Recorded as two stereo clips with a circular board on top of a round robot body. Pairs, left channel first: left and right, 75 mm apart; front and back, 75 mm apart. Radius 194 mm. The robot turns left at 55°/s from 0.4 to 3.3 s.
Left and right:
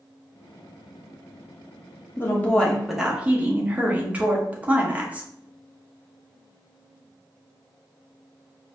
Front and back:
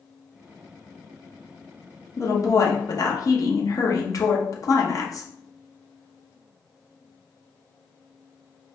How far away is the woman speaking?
About 1.2 m.